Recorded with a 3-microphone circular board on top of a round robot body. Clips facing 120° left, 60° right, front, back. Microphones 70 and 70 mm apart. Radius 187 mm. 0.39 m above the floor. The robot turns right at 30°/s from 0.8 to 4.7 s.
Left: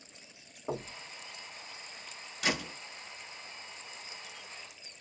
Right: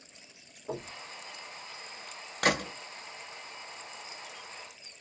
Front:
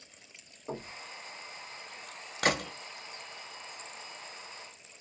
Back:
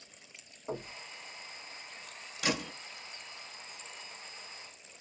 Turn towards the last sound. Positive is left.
turn(degrees=40)